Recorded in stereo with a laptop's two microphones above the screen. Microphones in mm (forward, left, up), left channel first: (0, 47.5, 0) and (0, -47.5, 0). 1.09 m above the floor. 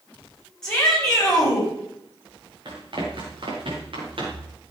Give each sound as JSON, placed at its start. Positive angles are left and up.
{"t": 0.6, "sound": "a shout", "side_deg": 5, "distance_m": 8.0}
{"t": 2.6, "sound": "running footsteps", "side_deg": -50, "distance_m": 4.5}